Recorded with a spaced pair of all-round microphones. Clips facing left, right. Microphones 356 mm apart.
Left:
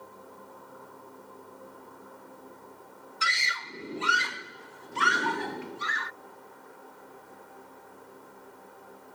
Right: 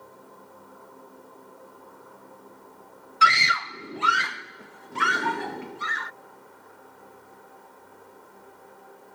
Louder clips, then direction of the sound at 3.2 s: Right 13 dB; 70° right (ahead or behind).